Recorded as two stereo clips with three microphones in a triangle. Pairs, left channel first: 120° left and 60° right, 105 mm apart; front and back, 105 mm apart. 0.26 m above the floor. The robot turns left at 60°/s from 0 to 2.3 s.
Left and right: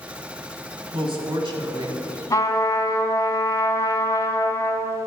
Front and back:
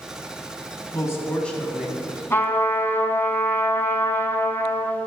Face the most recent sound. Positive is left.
turn(degrees=65)